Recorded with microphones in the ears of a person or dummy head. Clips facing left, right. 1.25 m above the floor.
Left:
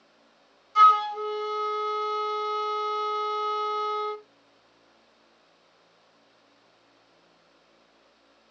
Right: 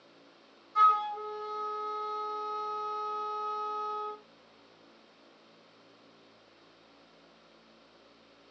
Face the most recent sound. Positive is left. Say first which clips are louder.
# left 6 dB
turn(degrees=45)  # may be behind; listen again after turning